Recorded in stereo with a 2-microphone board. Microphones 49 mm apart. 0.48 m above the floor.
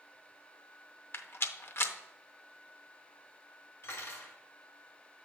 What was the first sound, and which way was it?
A rattle, 55° left (ahead or behind).